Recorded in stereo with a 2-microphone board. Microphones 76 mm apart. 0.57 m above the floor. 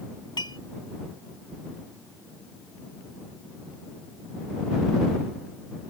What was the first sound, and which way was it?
Dishes clattering, 80° left.